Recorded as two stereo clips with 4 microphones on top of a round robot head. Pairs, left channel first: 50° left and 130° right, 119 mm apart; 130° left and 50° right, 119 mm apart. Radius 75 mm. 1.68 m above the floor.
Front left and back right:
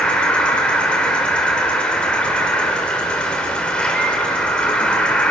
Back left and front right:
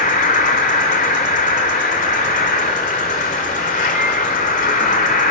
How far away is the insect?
About 1.8 m.